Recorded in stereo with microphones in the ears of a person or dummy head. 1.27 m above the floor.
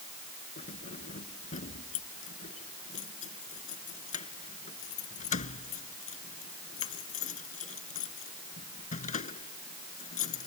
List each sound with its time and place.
0.6 s keys jangling: 40° left (ahead or behind)